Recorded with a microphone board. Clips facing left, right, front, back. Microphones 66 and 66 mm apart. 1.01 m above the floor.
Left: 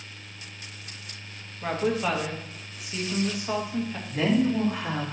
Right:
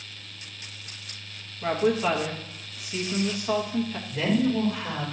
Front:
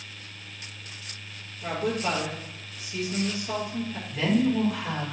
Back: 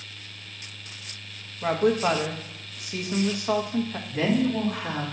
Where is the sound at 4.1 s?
130° left, 2 m.